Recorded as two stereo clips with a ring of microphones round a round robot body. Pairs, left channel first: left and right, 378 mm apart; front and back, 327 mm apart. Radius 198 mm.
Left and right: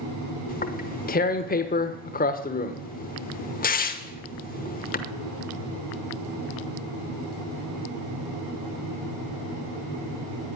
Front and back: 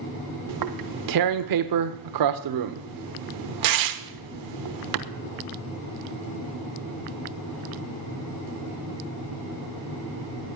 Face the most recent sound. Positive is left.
turn(degrees=160)